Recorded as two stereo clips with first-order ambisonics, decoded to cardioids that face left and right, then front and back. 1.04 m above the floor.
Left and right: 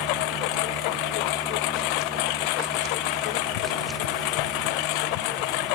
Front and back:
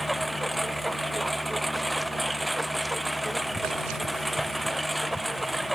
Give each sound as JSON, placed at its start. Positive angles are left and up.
{"t": 0.0, "sound": "a lawn mower", "azimuth_deg": 90}